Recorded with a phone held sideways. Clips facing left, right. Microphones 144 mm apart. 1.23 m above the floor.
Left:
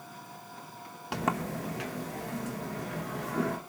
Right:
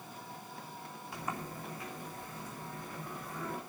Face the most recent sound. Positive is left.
turn(degrees=80)